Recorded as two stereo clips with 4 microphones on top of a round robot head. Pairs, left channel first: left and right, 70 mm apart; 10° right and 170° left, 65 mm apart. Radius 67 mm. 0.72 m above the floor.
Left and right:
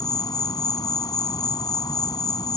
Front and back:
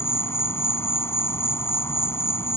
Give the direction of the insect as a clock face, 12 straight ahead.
11 o'clock.